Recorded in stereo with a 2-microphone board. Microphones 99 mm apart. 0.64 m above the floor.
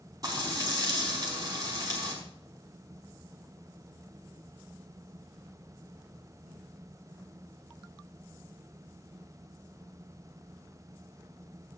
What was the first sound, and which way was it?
Frying, 35° right (ahead or behind).